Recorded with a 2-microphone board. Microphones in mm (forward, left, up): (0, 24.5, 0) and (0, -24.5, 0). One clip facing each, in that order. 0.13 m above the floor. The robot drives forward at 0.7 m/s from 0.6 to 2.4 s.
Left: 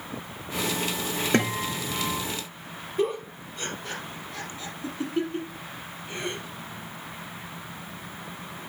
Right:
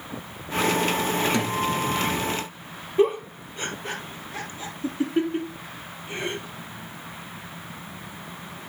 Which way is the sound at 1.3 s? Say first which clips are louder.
Right 1 dB; 50° left (ahead or behind).